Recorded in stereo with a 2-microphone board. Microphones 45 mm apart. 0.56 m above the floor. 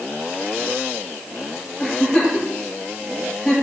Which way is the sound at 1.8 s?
10° left (ahead or behind).